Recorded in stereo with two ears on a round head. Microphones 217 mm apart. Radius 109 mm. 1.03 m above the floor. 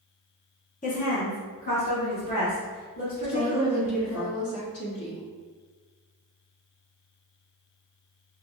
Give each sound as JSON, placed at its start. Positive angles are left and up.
{"t": 0.8, "sound": "a woman speaking", "side_deg": 30, "distance_m": 0.8}
{"t": 3.2, "sound": "a woman speaking", "side_deg": 60, "distance_m": 1.5}